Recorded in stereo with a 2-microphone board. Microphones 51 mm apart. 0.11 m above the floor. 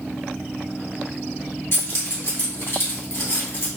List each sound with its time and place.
1.7 s keys jangling: 50° left (ahead or behind), 1.7 m